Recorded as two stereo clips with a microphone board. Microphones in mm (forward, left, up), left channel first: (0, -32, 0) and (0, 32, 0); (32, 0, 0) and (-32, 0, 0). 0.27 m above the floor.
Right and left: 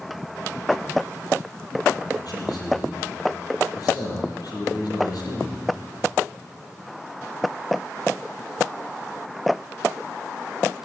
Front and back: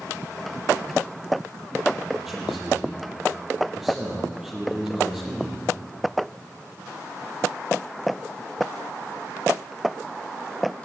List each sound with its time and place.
2.2 s a man speaking: 95° right, 7.5 m